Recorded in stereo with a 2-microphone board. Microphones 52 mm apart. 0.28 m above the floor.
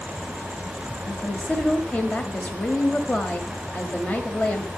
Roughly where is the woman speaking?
Left.